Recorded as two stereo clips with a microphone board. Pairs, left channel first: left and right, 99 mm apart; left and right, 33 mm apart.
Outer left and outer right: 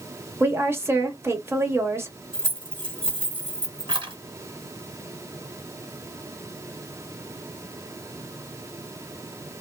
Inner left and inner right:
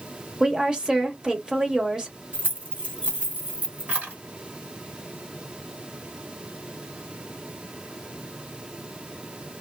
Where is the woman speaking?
25° right (ahead or behind), 1.0 m.